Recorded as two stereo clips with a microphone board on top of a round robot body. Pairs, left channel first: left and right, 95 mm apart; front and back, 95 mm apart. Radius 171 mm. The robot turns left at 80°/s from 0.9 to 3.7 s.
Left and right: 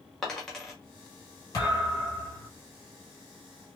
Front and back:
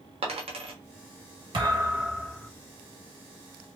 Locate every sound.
0.2 s a dropped coin: 175° left, 1.4 m
1.5 s a thud: 145° left, 1.7 m; by 2.5 s 70° left, 1.7 m